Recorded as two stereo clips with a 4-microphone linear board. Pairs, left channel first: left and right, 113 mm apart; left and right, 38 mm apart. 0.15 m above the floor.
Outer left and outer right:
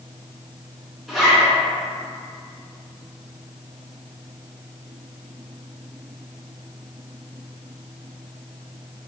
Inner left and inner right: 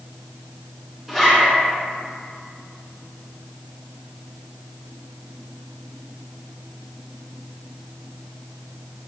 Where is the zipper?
5° right (ahead or behind), 1.9 m.